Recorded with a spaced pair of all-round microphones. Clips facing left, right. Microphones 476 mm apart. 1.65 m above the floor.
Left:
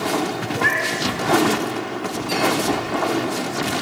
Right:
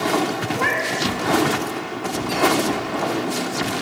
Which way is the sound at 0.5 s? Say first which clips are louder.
Even; 55° right (ahead or behind).